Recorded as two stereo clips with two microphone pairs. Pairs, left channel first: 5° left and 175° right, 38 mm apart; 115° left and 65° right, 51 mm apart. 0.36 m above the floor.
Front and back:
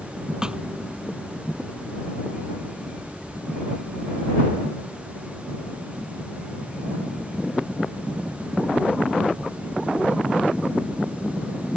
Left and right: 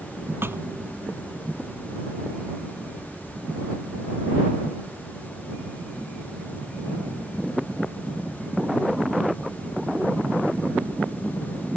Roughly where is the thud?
Right.